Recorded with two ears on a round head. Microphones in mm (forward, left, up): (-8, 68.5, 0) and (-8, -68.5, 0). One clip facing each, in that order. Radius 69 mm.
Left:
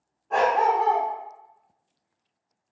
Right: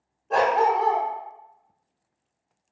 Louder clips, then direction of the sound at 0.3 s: Right 1 dB; 35° right (ahead or behind).